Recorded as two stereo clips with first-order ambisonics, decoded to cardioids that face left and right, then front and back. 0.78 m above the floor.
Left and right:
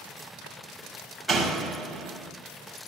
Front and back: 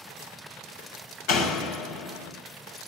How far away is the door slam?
About 4.5 m.